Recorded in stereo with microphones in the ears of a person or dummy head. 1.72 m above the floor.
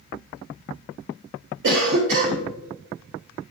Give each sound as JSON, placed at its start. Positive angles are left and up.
{"t": 1.6, "sound": "a cough", "side_deg": -65, "distance_m": 0.7}